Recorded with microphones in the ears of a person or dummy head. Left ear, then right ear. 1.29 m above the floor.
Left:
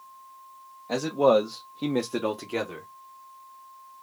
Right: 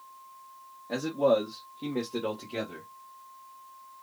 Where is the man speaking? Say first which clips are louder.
Left 4 dB; 50° left (ahead or behind), 0.9 m; by 2.9 s 30° left (ahead or behind), 0.8 m.